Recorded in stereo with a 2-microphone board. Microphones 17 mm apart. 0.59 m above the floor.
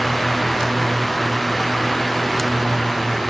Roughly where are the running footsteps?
No running footsteps in this recording.